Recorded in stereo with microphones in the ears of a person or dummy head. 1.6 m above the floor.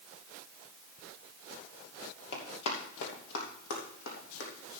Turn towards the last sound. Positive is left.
turn(degrees=70)  # may be behind; listen again after turning